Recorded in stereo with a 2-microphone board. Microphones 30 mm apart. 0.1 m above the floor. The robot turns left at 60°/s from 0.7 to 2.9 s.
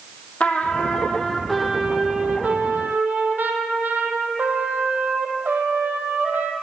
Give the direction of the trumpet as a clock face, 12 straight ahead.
10 o'clock.